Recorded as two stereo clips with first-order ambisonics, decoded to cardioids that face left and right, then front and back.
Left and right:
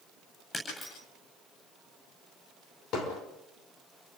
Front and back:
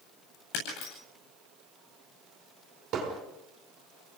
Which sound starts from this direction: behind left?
Hammering, at 2.9 s.